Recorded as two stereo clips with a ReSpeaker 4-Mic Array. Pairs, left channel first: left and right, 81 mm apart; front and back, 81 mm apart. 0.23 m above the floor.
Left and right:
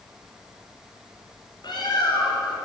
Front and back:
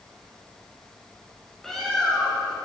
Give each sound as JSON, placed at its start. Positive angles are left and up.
{"t": 1.6, "sound": "a bird", "azimuth_deg": 85, "distance_m": 1.7}